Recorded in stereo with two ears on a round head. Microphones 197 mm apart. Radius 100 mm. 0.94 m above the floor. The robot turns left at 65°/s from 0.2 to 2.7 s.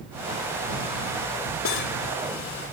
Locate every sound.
1.6 s cutlery clinking: 65° left (ahead or behind); by 2.0 s 40° left (ahead or behind)